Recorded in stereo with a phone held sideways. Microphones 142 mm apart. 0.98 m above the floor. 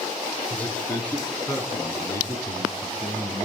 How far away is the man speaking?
About 8.5 m.